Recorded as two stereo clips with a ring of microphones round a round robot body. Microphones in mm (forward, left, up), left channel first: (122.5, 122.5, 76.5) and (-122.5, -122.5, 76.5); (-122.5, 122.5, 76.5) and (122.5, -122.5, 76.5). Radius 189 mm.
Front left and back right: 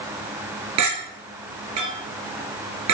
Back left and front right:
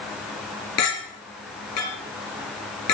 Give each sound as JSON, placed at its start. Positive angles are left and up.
{"t": 0.8, "sound": "a clink", "azimuth_deg": 180, "distance_m": 5.5}